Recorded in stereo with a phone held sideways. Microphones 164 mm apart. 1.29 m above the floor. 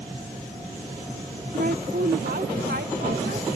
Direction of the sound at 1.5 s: 55° right (ahead or behind).